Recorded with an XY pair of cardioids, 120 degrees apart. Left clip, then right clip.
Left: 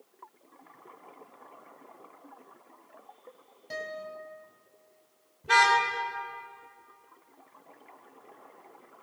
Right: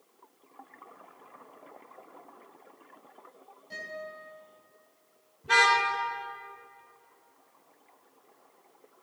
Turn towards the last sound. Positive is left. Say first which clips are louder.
# left 1 dB
turn(degrees=15)